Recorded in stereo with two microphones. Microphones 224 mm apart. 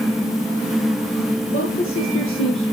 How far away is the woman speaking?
About 4 m.